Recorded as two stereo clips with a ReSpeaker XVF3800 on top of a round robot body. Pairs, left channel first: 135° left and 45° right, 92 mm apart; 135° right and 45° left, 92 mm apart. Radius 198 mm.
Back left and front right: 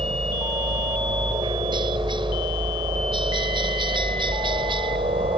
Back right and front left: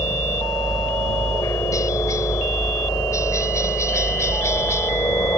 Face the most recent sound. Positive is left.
turn(degrees=-75)